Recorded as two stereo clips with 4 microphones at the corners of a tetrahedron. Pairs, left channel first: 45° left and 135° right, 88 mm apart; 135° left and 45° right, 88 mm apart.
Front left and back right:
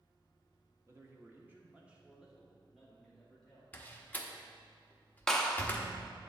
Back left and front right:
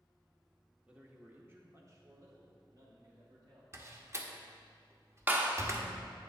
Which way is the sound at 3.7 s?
15° right.